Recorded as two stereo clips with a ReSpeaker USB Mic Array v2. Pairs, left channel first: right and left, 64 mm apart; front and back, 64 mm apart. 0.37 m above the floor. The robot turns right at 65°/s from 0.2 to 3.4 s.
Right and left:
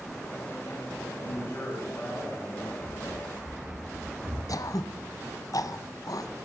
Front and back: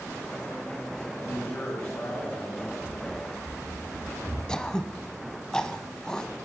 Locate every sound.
1.2 s a man speaking: 75° right, 4.5 m; by 2.7 s 20° left, 4.5 m
2.8 s running footsteps: 30° left, 8 m; by 4.4 s 65° left, 7.5 m
4.5 s throat clearing: 80° right, 0.7 m